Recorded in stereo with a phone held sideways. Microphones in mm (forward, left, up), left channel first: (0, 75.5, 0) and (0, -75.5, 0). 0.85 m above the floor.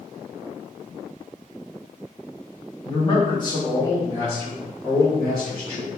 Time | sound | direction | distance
2.9 | a man speaking | 35° left (ahead or behind) | 1.2 m